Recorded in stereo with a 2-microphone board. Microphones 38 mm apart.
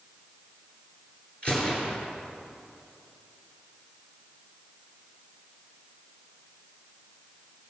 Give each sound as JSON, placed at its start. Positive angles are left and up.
{"t": 1.4, "sound": "a gunshot", "side_deg": 30, "distance_m": 2.5}